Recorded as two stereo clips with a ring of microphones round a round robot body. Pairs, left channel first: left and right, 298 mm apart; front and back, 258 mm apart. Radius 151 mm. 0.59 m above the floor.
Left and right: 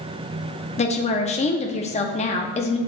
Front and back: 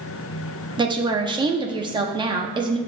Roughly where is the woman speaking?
Behind left.